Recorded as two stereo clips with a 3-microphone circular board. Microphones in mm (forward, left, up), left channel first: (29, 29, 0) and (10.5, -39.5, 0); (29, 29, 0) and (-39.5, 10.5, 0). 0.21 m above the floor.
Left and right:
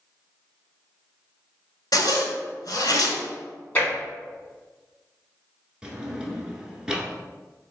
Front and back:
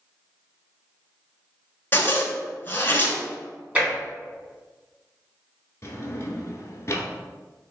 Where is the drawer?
25° right, 0.6 m.